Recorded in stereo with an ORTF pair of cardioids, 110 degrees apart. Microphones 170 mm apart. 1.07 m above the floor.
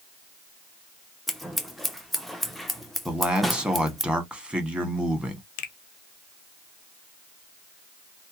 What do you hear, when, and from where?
1.3 s scissors: straight ahead, 0.6 m
3.0 s a man speaking: 5° right, 1.2 m
5.6 s a finger snap: 60° left, 0.7 m